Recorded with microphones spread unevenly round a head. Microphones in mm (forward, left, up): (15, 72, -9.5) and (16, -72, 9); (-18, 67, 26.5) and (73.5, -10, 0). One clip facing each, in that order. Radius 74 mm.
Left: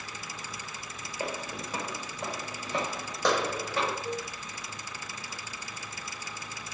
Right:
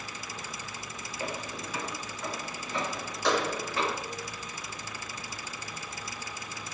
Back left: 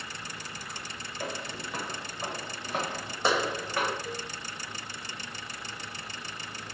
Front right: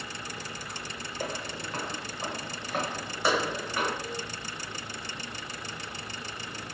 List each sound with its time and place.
1.2 s footsteps: 70° left, 1.1 m; by 3.9 s 85° left, 3 m
4.0 s a cowbell: 135° left, 1.4 m